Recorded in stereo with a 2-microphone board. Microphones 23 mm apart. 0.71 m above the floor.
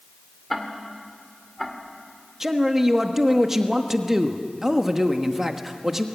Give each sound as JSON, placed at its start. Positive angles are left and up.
{"t": 0.5, "sound": "ticking", "side_deg": 5, "distance_m": 2.0}
{"t": 2.4, "sound": "a man speaking", "side_deg": -15, "distance_m": 1.2}